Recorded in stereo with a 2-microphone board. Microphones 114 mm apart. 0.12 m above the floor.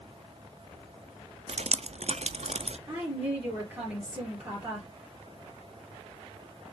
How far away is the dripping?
About 0.5 m.